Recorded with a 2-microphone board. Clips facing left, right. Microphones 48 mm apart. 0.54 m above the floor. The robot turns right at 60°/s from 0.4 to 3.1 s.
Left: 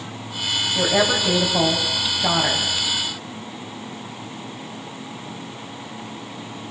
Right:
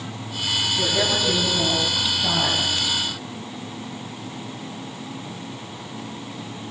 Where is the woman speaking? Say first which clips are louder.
Left 5 dB; 55° left, 4 m; by 2.6 s 165° left, 4 m.